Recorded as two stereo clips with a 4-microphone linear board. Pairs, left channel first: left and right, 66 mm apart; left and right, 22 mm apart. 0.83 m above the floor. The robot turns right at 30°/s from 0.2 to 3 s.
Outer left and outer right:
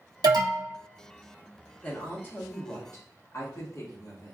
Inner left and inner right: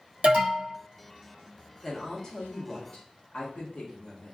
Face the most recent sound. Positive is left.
turn(degrees=55)